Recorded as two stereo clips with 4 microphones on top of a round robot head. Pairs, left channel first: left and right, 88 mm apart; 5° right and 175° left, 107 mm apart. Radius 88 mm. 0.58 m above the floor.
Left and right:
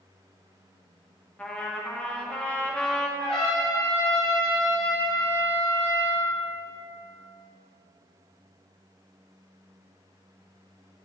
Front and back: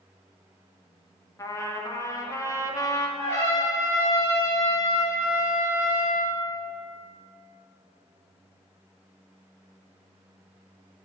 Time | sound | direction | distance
1.4 | a trumpet | 25° left | 1.1 m
3.2 | a trumpet | 60° left | 2 m